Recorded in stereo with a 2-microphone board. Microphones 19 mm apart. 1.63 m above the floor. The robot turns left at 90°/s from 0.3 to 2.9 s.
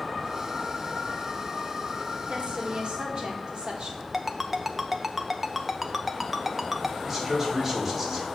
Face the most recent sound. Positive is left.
turn(degrees=-15)  # may be behind; listen again after turning